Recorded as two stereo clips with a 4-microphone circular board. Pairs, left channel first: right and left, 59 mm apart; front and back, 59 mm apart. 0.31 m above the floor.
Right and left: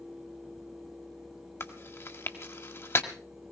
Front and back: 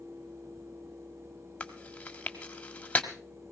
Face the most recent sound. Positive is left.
turn(degrees=-60)